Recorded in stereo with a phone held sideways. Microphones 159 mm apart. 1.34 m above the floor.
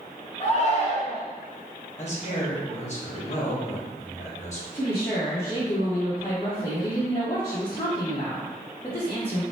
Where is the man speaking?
50° left (ahead or behind), 1.0 m.